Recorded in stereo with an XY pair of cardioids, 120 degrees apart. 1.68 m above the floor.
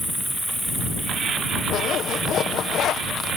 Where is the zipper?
60° left.